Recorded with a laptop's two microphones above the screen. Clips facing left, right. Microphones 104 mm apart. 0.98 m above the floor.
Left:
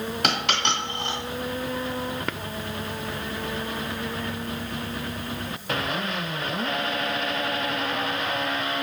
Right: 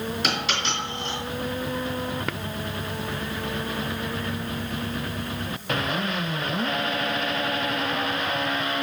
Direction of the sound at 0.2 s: 60° left (ahead or behind).